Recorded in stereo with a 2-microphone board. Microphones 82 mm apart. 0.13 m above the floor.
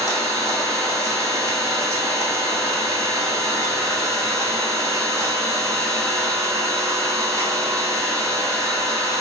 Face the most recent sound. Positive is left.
turn(degrees=-40)  # may be behind; listen again after turning